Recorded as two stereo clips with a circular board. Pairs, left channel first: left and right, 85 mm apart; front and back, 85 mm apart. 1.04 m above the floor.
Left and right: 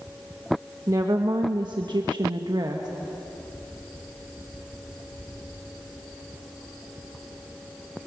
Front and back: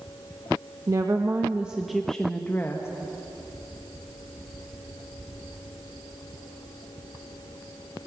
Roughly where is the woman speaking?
Behind right.